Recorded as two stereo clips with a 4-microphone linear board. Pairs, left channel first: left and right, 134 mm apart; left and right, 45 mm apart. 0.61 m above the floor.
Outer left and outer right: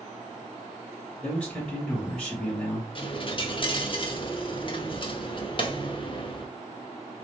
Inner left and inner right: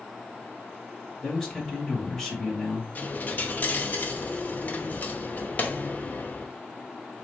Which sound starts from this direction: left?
A dropped coin, at 3.0 s.